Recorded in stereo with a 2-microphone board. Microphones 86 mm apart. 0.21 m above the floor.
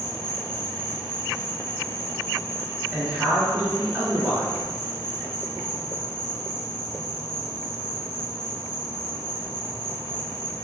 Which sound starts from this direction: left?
An insect, at 0.0 s.